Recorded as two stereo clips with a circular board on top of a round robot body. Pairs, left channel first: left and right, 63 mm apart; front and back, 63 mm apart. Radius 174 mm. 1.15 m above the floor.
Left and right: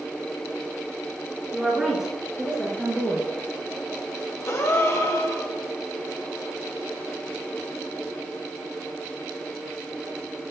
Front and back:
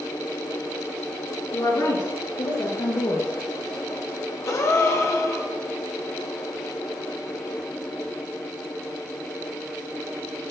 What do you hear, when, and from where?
1.5 s a woman speaking: 5° right, 1.9 m; by 3.3 s 30° right, 1.0 m
4.5 s a gasp: 45° left, 0.7 m